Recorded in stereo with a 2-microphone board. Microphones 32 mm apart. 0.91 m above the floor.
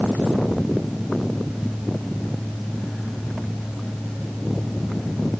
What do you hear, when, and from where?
Only background noise.